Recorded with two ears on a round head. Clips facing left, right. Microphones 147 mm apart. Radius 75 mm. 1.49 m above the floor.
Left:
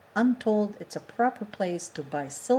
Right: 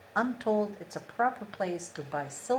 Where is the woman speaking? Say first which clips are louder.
Left 5 dB; 25° left (ahead or behind), 0.9 m.